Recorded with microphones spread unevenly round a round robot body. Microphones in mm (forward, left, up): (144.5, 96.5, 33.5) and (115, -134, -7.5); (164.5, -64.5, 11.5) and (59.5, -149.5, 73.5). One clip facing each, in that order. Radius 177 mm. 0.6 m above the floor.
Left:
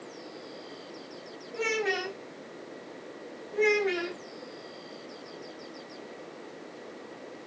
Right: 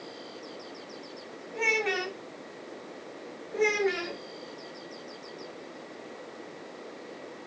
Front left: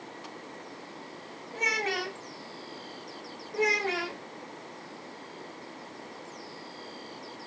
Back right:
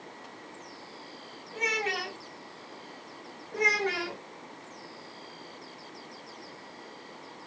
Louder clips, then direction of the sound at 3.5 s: Left 1 dB, front left 1 dB; 170° right.